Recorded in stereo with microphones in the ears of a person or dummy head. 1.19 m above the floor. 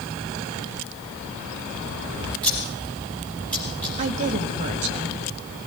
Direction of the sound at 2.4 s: 10° left (ahead or behind).